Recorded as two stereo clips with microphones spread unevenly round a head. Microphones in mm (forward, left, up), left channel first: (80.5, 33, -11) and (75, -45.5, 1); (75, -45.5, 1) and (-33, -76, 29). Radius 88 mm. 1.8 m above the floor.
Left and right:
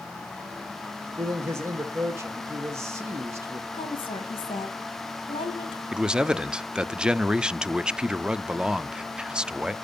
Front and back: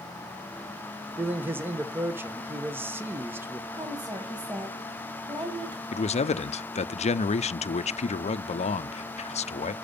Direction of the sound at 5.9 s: 15° right.